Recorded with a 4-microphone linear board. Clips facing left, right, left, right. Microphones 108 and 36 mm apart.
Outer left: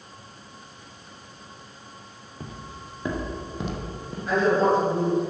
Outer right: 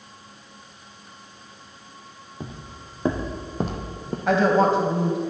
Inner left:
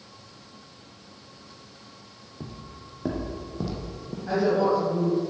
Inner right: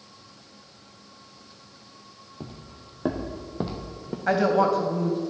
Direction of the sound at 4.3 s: 70° right (ahead or behind).